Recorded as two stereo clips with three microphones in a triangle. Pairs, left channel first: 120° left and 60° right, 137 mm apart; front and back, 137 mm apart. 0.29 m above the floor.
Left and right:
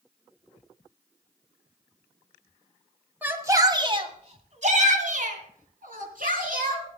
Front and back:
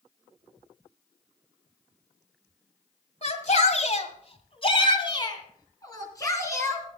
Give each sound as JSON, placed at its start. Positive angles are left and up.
{"t": 3.2, "sound": "a shout", "azimuth_deg": 15, "distance_m": 1.7}